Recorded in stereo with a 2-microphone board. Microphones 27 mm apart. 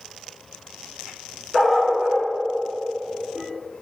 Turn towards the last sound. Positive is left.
turn(degrees=-5)  # may be behind; listen again after turning